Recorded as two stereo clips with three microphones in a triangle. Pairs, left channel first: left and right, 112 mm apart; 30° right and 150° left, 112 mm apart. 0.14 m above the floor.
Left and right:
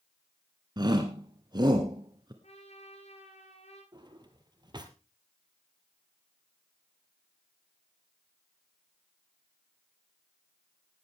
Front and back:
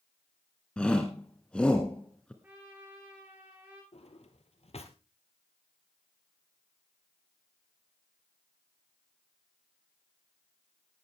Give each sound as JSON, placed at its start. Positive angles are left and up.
{"t": 0.8, "sound": "a shout", "azimuth_deg": -105, "distance_m": 1.4}
{"t": 2.4, "sound": "a trumpet", "azimuth_deg": 75, "distance_m": 6.0}
{"t": 3.9, "sound": "a drawer", "azimuth_deg": -40, "distance_m": 1.8}